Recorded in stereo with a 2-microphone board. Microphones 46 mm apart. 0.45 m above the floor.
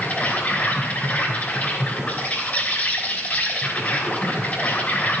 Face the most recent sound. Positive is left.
turn(degrees=40)  # may be behind; listen again after turning